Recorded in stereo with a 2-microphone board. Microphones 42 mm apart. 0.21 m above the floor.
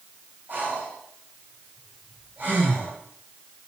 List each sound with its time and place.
0.5 s breathing: 45° right (ahead or behind), 3 m